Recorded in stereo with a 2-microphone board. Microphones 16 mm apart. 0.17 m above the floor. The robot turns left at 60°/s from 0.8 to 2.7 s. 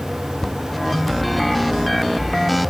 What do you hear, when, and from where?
0.4 s a cupboard door: 20° left (ahead or behind)